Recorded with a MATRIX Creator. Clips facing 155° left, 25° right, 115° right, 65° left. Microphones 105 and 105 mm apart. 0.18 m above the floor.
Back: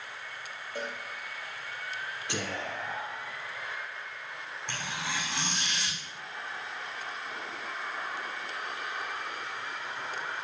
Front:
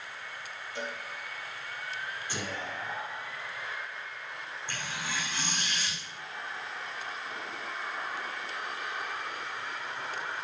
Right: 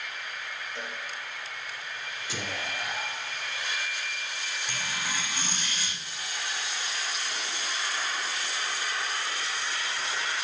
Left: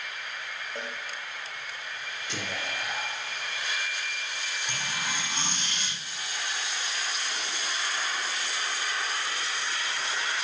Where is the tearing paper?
135° left, 9 m.